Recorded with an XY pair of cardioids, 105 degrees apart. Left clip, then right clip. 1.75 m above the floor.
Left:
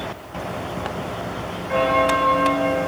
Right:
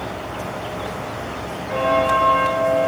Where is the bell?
30° left, 6.5 m.